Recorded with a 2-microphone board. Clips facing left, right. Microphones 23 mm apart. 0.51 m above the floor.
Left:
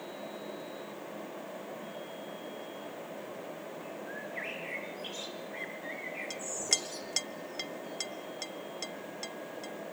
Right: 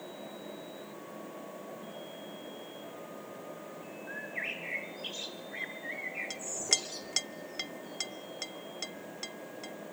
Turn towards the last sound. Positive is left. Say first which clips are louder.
# even
turn(degrees=-10)  # may be behind; listen again after turning